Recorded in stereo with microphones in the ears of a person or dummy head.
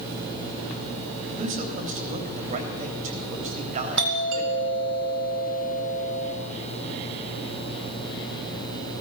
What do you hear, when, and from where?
1.4 s a man speaking: 40° right (ahead or behind), 3.5 m
4.0 s a doorbell: 65° right (ahead or behind), 2.5 m